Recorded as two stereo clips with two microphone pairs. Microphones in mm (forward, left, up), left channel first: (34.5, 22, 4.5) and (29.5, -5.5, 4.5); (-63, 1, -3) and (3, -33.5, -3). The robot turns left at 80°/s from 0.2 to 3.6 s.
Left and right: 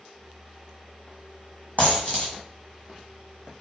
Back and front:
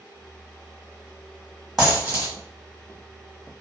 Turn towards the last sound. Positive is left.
turn(degrees=-90)